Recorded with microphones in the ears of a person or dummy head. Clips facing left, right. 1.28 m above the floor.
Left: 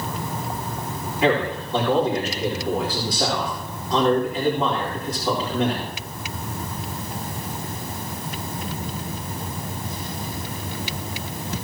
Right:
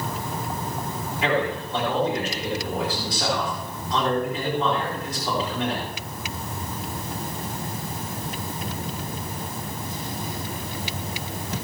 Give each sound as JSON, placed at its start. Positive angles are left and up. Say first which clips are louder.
{"t": 1.2, "sound": "a man speaking", "louder": "left 3 dB", "side_deg": 40, "distance_m": 4.5}